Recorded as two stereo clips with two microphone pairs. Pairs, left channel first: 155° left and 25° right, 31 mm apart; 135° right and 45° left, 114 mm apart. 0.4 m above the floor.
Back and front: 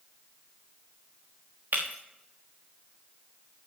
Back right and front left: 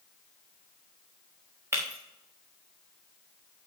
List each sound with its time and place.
1.7 s breaking glass: 25° right, 4 m